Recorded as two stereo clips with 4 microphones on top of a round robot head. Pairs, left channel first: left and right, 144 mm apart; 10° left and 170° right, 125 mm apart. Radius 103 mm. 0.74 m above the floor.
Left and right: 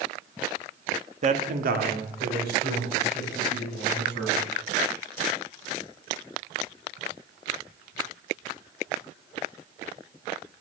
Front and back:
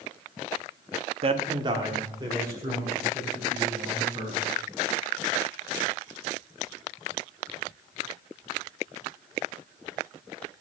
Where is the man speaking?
130° right, 0.9 m; by 4.4 s 95° right, 5.5 m.